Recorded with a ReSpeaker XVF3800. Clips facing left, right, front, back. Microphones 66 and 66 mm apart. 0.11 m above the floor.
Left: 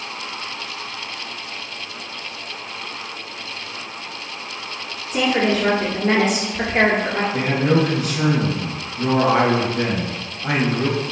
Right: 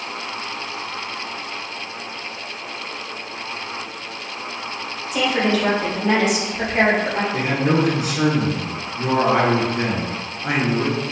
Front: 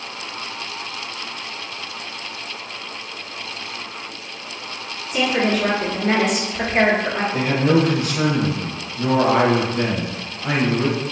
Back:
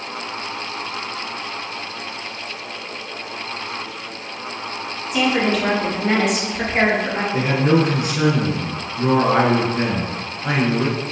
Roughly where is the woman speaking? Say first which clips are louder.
Left 1 dB, back 1 dB; left.